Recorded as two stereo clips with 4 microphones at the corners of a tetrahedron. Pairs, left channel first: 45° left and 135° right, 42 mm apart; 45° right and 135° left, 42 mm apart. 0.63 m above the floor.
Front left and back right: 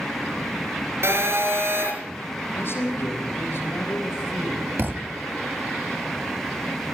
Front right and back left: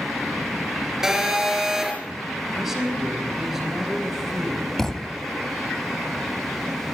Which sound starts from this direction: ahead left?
A man speaking, at 2.5 s.